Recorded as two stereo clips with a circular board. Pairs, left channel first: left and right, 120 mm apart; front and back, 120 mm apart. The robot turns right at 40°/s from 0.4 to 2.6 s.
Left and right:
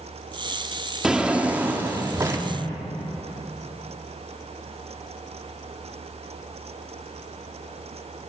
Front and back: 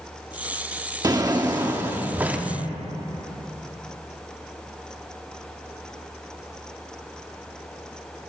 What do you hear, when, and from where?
1.0 s a drawer: 170° right, 0.7 m; by 2.5 s 110° right, 0.7 m